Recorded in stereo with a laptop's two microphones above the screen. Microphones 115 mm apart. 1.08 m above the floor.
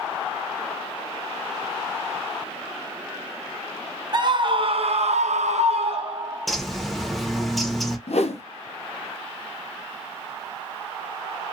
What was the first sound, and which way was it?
A scream, 40° right (ahead or behind).